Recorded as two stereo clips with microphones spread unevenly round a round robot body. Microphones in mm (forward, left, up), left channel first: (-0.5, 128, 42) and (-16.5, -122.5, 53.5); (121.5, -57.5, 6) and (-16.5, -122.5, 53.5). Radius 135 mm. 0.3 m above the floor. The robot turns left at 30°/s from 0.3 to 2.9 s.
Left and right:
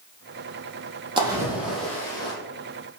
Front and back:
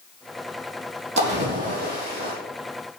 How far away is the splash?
About 6 m.